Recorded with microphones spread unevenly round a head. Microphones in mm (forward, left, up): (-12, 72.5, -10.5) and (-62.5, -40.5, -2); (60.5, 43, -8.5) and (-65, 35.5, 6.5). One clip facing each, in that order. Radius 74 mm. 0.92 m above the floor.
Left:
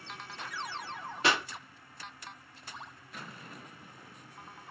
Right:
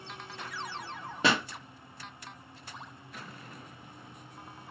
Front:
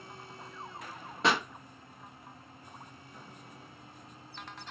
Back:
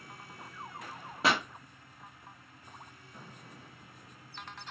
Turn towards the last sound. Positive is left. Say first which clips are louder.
# right 2 dB, front 1 dB
turn(degrees=-85)